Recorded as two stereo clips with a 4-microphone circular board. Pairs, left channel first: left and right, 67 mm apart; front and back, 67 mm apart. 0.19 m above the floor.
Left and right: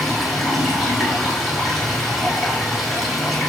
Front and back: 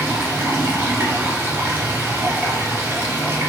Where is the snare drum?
I don't hear a snare drum.